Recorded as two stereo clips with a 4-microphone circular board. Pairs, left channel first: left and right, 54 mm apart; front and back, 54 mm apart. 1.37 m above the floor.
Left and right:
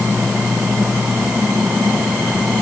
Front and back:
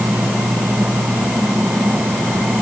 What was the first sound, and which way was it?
Only background noise.